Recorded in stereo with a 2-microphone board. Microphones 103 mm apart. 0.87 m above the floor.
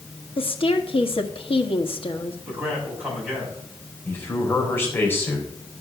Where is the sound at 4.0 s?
20° left (ahead or behind), 4 m.